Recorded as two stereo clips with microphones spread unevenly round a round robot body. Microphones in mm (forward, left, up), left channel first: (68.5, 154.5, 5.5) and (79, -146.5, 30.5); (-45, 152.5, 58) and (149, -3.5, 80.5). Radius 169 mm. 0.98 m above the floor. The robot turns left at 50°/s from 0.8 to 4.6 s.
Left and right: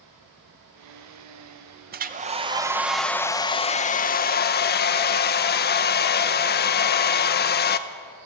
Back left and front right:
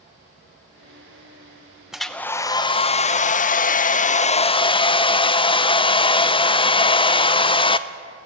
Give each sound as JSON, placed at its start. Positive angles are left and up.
{"t": 1.9, "sound": "a hair dryer", "azimuth_deg": -130, "distance_m": 0.8}